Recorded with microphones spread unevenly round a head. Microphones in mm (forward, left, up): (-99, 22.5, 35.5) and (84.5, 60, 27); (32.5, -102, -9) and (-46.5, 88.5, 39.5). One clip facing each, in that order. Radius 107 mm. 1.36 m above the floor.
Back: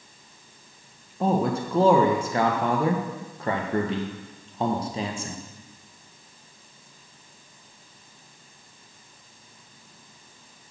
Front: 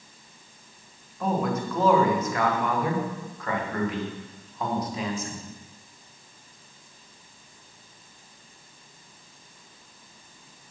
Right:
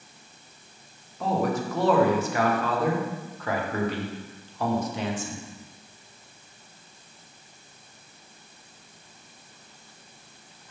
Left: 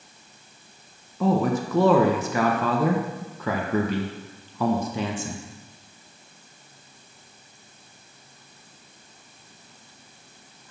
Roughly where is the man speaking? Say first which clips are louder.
Back 3 dB, left 4 dB; behind left.